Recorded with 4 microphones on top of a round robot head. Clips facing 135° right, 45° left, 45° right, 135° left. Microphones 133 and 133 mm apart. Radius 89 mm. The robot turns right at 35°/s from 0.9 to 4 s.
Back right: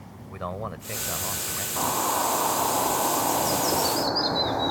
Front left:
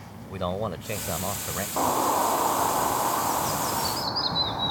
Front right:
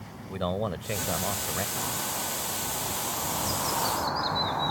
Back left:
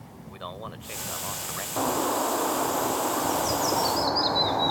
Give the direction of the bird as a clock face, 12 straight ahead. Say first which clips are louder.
Front left 3 dB, back left 9 dB; 8 o'clock.